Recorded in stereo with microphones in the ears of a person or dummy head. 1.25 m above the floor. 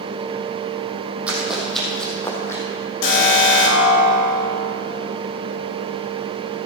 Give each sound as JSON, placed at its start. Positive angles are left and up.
{"t": 1.3, "sound": "running footsteps", "side_deg": -5, "distance_m": 3.5}
{"t": 3.0, "sound": "an alarm", "side_deg": 80, "distance_m": 4.0}